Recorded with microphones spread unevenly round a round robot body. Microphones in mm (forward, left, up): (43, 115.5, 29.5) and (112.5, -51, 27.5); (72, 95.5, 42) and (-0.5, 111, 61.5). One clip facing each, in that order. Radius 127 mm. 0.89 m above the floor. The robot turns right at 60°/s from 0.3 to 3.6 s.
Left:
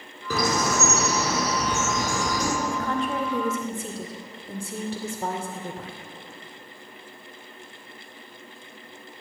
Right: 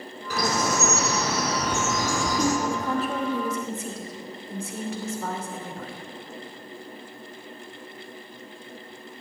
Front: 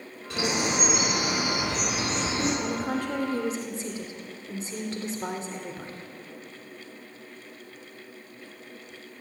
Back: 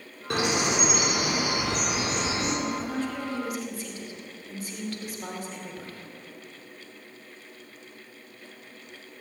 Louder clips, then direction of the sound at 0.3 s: Left 1 dB, back 2 dB; 145° left.